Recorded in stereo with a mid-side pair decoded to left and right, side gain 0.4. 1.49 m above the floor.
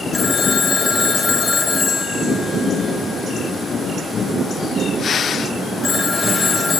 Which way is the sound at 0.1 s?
25° left.